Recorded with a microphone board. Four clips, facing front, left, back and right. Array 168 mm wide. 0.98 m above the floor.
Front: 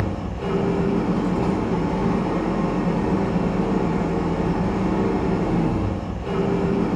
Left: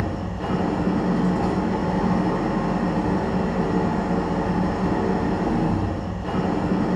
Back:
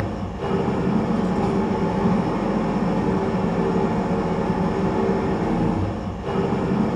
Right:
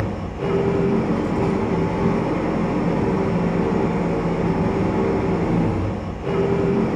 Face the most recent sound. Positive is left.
turn(degrees=-90)